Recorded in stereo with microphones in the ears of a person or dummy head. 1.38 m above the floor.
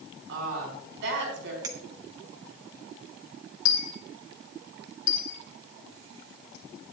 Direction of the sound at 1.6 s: 20° right (ahead or behind).